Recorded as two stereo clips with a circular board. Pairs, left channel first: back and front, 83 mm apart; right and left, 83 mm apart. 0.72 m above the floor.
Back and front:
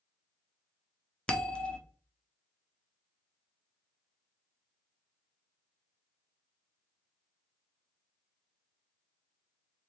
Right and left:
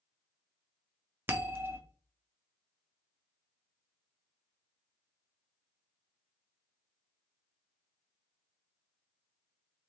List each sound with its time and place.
1.3 s a bell: 115° left, 0.6 m